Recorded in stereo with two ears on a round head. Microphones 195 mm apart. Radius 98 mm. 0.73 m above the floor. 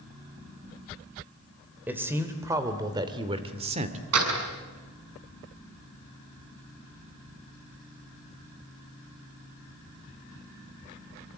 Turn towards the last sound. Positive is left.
turn(degrees=-85)